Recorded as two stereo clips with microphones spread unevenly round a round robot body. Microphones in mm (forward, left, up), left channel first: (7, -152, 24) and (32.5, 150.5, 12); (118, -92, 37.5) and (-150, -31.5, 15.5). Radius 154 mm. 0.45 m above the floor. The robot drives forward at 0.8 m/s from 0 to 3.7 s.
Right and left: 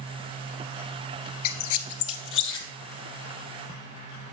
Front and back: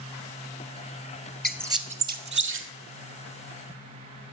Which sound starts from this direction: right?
A squeak, at 1.4 s.